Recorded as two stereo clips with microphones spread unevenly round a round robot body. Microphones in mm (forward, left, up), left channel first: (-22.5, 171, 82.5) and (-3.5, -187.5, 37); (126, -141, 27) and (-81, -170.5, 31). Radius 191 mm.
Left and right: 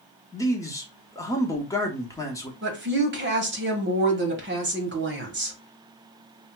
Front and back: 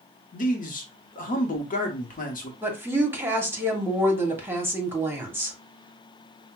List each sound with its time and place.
0.3 s a man speaking: 5° left, 1.0 m
2.6 s a woman speaking: 100° right, 1.4 m